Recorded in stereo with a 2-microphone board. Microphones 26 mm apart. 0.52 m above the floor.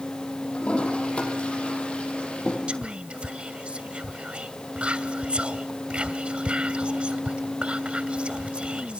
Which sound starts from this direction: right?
Whispering, at 2.7 s.